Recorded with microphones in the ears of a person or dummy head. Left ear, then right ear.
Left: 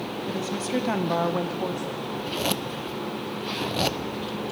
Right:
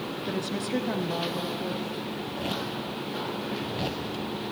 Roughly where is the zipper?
Left.